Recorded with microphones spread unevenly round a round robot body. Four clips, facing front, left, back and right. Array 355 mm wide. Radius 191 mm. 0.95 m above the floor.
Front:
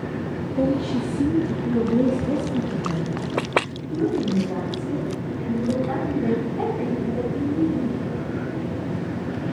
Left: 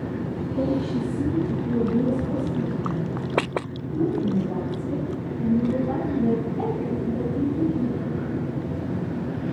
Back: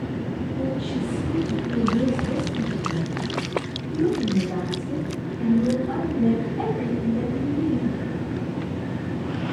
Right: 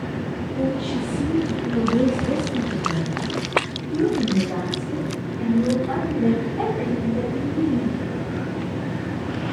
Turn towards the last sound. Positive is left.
turn(degrees=-80)